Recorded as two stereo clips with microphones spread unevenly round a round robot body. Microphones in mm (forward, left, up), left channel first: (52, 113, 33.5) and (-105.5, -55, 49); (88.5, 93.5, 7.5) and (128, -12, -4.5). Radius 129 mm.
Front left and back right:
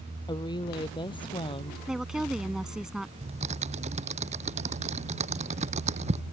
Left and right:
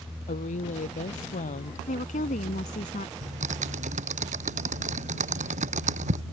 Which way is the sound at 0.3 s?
120° left.